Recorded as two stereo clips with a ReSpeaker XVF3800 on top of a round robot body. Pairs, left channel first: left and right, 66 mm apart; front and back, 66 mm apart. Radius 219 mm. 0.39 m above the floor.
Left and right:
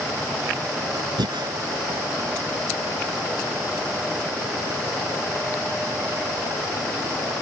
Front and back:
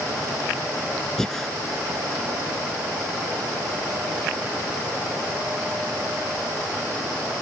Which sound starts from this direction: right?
Breathing, at 1.2 s.